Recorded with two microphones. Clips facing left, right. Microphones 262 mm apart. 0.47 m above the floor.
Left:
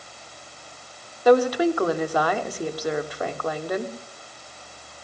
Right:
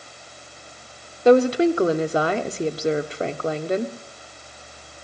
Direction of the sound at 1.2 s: 25° right (ahead or behind).